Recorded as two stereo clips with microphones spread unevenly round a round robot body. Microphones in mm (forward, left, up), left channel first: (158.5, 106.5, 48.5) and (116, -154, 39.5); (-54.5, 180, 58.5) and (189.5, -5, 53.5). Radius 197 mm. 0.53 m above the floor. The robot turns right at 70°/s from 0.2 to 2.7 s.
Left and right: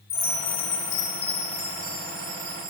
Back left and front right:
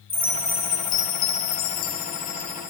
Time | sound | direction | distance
0.1 | a chime | 45° left | 1.1 m